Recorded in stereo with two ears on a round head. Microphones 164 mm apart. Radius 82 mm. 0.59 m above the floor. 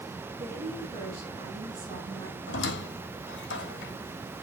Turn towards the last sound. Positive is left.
turn(degrees=70)  # may be behind; listen again after turning